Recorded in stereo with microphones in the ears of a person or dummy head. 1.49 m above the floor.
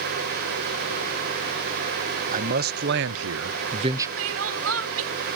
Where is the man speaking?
45° right (ahead or behind); by 4.1 s 15° right (ahead or behind).